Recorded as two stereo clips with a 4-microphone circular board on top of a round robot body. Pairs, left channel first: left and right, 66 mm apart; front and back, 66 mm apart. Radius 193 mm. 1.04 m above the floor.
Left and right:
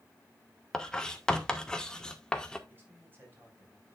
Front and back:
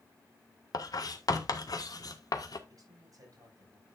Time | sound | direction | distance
0.7 | writing | 10° left | 1.6 m
2.7 | a man speaking | 150° right | 5.5 m